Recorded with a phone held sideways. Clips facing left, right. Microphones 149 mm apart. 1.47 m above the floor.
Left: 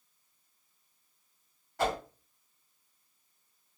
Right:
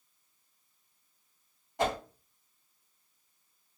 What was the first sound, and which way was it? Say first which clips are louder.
A whoosh: even; 20° right (ahead or behind).